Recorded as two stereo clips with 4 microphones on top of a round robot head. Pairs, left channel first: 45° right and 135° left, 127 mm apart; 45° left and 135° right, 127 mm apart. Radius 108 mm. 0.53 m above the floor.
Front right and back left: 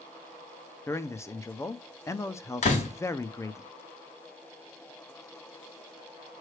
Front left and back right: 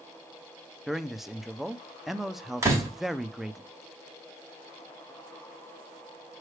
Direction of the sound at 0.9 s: 50° right.